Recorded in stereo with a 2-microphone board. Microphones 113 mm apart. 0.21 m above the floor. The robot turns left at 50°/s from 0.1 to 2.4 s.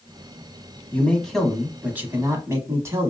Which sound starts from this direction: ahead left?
A man speaking, at 0.9 s.